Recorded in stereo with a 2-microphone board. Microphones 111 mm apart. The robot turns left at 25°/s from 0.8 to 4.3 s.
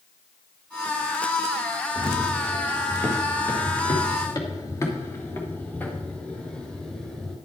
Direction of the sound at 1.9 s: Centre (ahead or behind).